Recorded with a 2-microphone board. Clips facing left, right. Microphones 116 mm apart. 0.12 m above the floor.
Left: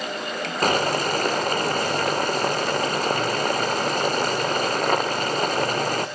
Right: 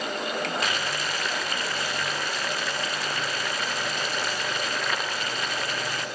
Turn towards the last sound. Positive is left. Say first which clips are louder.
# left 8 dB
turn(degrees=45)  # may be behind; listen again after turning